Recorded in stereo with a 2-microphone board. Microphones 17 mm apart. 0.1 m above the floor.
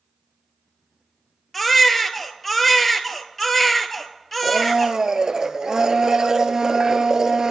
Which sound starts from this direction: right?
A blender, at 4.4 s.